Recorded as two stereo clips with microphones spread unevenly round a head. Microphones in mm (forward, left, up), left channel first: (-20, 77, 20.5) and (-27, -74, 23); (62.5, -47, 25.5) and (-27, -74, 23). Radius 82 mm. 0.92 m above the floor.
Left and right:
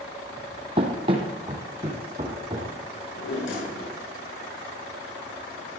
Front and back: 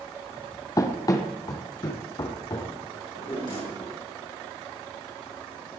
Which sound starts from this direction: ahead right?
Running footsteps, at 0.8 s.